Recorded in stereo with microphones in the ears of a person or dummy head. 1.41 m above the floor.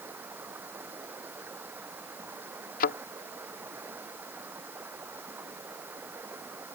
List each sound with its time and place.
0.0 s running water: 10° right (ahead or behind)
2.8 s a thud: 50° left (ahead or behind)